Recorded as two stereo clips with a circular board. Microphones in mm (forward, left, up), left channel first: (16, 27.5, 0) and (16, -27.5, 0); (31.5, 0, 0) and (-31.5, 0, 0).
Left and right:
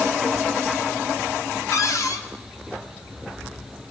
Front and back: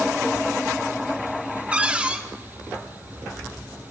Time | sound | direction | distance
1.7 | a cupboard door | 110° left | 1.0 m